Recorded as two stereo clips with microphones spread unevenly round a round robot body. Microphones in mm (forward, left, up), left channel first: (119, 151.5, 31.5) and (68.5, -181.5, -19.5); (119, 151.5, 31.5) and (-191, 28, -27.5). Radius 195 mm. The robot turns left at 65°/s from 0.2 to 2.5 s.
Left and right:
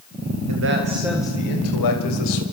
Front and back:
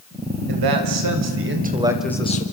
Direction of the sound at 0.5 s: 145° right.